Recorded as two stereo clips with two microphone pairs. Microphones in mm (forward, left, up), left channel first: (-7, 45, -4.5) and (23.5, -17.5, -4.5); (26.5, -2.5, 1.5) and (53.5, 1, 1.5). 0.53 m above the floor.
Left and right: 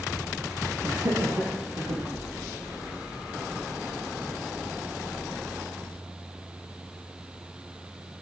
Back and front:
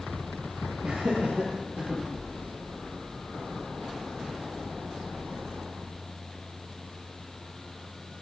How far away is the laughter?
About 10 m.